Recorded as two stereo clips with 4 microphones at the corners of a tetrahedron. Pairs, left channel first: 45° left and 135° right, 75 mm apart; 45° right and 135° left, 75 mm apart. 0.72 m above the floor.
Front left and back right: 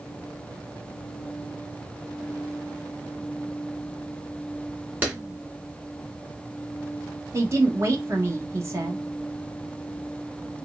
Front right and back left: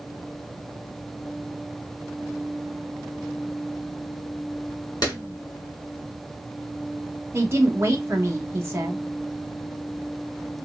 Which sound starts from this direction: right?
A clap, at 5.0 s.